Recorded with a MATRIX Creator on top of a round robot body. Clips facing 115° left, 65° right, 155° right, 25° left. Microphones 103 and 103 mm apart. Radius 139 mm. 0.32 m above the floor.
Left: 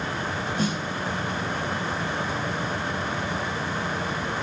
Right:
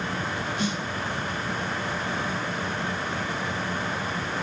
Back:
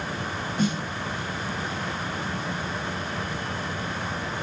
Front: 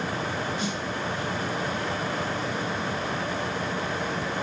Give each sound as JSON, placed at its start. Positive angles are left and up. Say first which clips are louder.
{"t": 0.6, "sound": "a snare drum", "louder": "left 3 dB, back 4 dB", "azimuth_deg": 160, "distance_m": 1.2}